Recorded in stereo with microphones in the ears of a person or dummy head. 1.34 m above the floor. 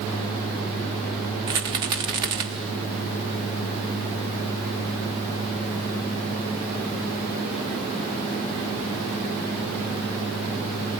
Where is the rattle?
15° right (ahead or behind), 0.8 m.